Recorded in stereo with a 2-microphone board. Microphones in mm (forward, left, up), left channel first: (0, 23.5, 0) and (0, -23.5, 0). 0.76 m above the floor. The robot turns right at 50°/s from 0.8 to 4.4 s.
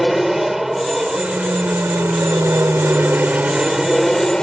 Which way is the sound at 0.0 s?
5° right (ahead or behind).